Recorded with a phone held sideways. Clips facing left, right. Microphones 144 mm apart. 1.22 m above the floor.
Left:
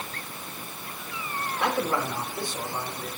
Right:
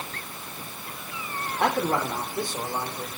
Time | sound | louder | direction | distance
1.6 | a man speaking | right 2 dB | 45° right (ahead or behind) | 3.5 m